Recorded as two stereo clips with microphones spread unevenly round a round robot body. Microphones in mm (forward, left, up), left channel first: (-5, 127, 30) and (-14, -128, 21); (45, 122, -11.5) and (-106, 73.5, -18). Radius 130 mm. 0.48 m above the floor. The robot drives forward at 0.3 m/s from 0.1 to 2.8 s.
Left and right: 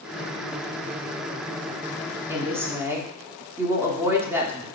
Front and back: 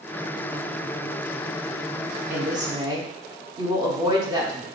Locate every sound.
2.3 s a woman speaking: 150° right, 0.7 m; by 4.7 s 160° right, 0.8 m